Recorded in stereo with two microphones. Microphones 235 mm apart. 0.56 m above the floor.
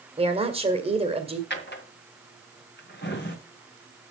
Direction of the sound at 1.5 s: 50° left (ahead or behind).